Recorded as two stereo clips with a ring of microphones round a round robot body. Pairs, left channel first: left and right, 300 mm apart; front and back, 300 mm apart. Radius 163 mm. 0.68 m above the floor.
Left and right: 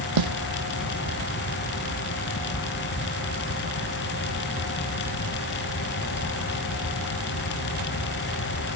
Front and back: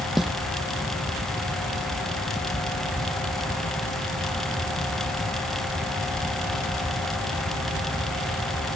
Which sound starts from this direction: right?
A snare drum, at 0.2 s.